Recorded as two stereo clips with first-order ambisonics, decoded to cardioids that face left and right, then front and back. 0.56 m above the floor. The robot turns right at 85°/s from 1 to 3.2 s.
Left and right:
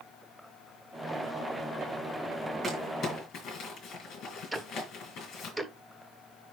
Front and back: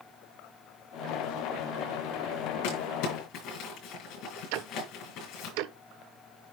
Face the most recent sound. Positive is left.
turn(degrees=180)